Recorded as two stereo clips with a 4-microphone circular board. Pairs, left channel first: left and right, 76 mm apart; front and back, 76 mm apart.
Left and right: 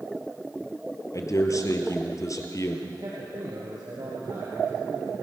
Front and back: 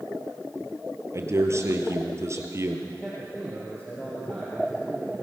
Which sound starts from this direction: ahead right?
A man speaking, at 2.9 s.